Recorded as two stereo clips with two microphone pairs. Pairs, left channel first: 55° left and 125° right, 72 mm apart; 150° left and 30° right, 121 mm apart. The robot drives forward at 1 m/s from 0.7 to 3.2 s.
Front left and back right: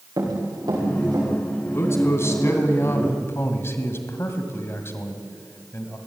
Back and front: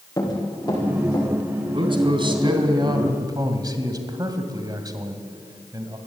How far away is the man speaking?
About 3.5 m.